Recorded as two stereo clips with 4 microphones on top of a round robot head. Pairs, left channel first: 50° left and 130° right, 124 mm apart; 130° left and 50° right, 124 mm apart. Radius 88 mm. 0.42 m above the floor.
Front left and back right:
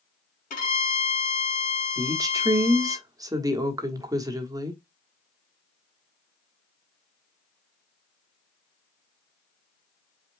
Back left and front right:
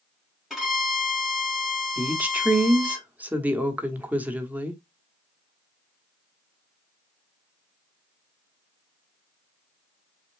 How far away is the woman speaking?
About 1.2 m.